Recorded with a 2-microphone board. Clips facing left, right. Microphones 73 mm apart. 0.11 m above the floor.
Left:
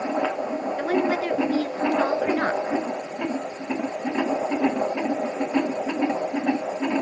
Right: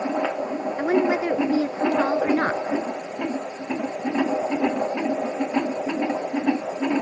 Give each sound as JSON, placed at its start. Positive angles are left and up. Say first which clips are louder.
{"t": 0.8, "sound": "a woman speaking", "louder": "right 3 dB", "side_deg": -20, "distance_m": 1.2}